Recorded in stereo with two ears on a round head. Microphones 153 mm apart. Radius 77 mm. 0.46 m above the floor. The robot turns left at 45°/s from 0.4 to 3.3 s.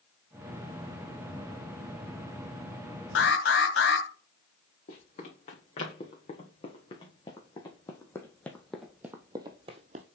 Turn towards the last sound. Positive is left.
turn(degrees=-45)  # may be behind; listen again after turning